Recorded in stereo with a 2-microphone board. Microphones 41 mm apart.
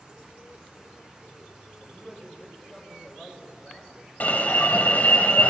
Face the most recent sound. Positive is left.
turn(degrees=45)  # may be behind; listen again after turning